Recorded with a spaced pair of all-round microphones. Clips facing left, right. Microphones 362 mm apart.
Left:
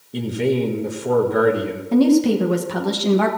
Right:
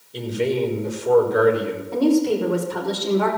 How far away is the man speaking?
About 1.6 m.